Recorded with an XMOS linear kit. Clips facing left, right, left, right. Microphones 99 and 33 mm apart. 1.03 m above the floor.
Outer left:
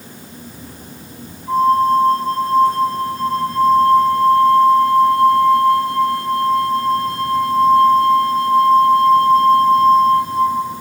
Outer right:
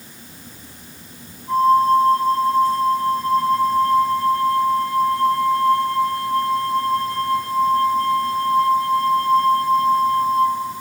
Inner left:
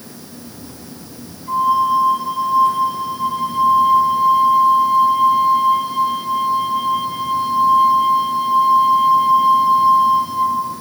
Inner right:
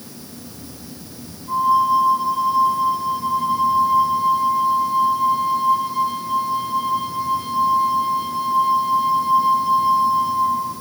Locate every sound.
1.5 s a flute: 80° left, 5 m